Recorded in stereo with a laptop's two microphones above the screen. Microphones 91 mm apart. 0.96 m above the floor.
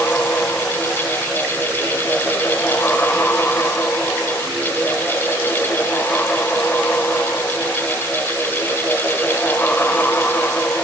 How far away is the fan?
About 0.7 m.